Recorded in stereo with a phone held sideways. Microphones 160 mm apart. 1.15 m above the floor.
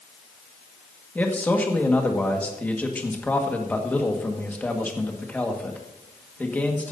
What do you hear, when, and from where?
1.1 s a man speaking: 10° left (ahead or behind), 1.6 m